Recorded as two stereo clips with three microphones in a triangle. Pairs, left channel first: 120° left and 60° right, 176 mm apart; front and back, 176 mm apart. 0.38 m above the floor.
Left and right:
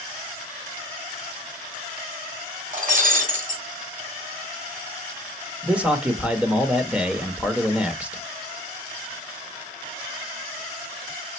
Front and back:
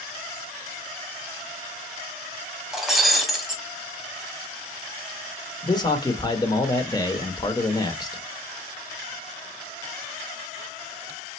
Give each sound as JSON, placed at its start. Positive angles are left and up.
{"t": 2.7, "sound": "breaking glass", "azimuth_deg": -90, "distance_m": 1.2}
{"t": 5.6, "sound": "a man speaking", "azimuth_deg": 15, "distance_m": 0.8}